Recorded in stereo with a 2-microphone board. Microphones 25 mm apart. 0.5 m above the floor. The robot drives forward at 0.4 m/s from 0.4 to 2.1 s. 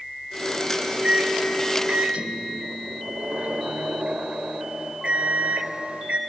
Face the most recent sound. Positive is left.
turn(degrees=-60)  # may be behind; listen again after turning